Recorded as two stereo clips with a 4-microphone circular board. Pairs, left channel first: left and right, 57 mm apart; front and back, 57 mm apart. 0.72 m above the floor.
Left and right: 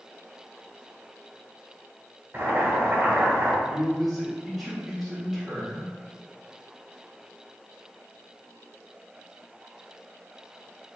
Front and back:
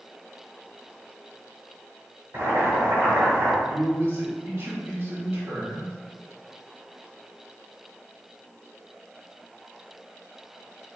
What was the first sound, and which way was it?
Boiling, 145° right.